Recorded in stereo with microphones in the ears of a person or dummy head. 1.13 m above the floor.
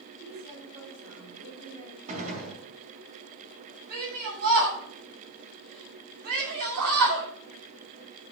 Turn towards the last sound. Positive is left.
turn(degrees=-50)  # may be behind; listen again after turning